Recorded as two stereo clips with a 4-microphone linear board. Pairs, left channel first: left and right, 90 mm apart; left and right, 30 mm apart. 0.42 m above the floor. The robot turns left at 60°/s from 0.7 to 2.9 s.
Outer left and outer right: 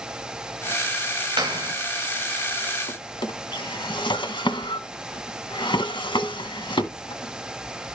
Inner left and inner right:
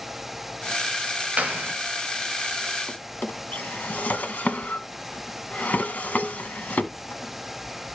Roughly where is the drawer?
Left.